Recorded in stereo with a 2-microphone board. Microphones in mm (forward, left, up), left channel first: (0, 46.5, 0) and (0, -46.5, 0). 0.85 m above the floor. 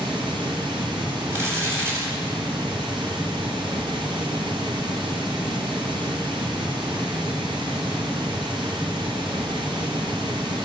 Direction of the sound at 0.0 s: 60° right (ahead or behind).